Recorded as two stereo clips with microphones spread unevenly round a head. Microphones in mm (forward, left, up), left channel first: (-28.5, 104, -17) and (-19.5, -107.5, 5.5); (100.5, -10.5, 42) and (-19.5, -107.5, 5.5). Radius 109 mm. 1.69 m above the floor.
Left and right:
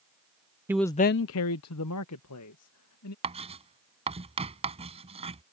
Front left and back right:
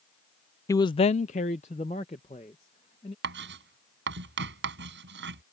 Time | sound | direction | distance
0.7 | a man speaking | 15° right | ?
3.2 | writing | 150° right | ?